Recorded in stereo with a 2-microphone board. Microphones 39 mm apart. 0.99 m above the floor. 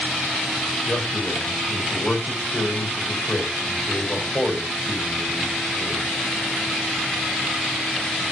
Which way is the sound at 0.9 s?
35° left (ahead or behind).